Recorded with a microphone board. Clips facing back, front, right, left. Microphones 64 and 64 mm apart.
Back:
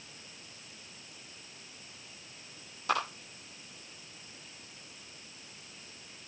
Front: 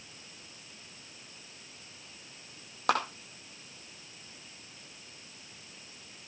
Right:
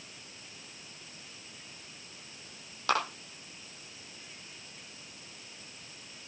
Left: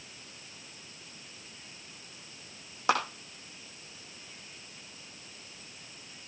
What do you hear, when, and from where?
2.9 s a clap: 20° left, 6 m